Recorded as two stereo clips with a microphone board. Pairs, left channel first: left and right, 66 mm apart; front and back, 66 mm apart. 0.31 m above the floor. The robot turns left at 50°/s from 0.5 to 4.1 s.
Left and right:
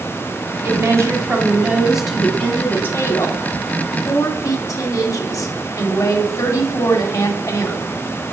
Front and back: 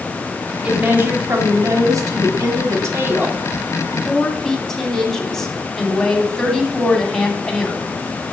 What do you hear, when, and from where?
0.6 s a woman speaking: 105° right, 2.5 m; by 7.8 s 80° left, 2.5 m